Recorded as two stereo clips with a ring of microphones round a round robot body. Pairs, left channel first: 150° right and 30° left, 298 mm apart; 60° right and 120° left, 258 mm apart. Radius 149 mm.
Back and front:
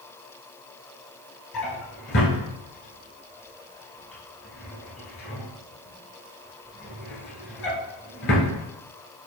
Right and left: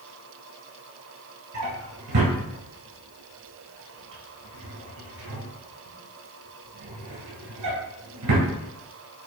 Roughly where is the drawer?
Behind left.